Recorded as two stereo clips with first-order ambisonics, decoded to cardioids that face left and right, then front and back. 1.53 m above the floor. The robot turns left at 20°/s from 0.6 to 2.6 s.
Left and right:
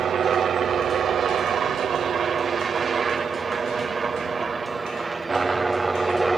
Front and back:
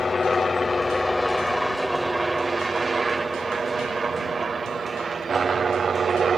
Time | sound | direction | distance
0.0 | a helicopter | 60° right | ?